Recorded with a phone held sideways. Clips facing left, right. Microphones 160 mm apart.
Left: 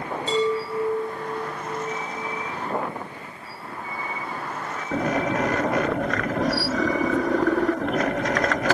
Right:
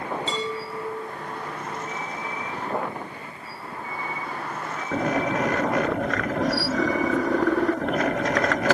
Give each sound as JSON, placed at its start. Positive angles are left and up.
{"t": 0.3, "sound": "a chime", "side_deg": 55, "distance_m": 4.5}